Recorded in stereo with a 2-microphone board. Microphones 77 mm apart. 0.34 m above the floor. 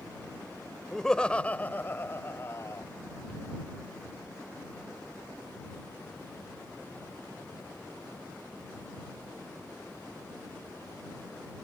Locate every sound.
0.9 s laughter: 5° left (ahead or behind); by 2.9 s 40° left (ahead or behind)